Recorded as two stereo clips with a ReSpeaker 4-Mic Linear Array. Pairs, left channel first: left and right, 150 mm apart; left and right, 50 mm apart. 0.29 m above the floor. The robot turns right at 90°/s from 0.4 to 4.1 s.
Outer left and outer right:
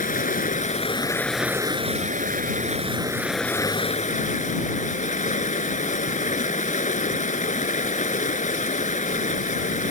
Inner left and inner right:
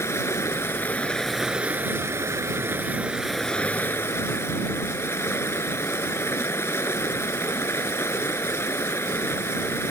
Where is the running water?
95° left; by 9.9 s 65° left.